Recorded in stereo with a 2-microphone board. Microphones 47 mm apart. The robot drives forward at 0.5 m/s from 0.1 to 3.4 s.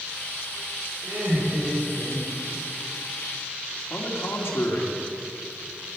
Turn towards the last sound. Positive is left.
turn(degrees=70)  # may be behind; listen again after turning